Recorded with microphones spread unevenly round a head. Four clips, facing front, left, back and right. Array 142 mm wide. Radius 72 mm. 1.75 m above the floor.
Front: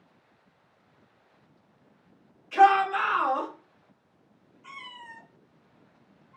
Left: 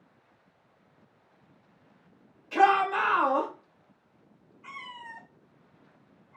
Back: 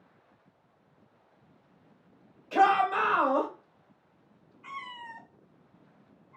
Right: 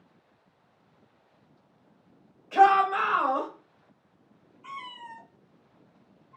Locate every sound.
2.5 s a shout: 175° left, 1.8 m
4.6 s a cat meowing: 160° left, 2 m